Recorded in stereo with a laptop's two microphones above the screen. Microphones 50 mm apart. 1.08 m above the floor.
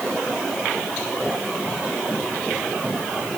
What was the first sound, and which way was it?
Only background noise.